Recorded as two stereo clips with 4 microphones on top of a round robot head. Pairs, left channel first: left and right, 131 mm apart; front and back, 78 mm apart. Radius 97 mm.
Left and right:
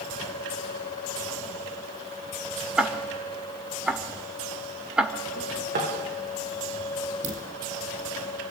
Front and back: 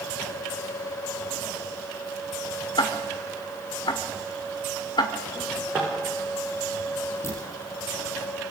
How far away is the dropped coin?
About 5 m.